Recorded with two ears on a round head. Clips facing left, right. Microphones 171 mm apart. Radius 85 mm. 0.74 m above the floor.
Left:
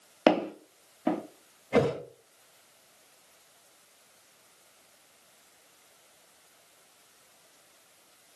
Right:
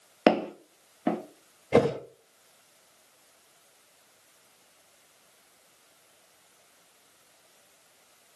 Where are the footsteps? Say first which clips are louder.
Right 1 dB; 15° right (ahead or behind), 0.7 m.